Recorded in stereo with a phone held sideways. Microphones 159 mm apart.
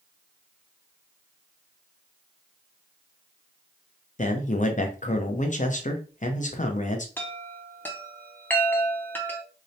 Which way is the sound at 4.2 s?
50° left (ahead or behind).